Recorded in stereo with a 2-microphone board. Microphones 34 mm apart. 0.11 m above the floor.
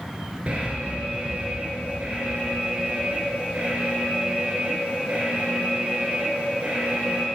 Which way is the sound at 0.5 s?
40° right (ahead or behind).